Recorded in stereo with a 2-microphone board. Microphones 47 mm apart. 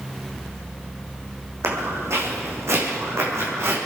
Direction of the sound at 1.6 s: 65° right (ahead or behind).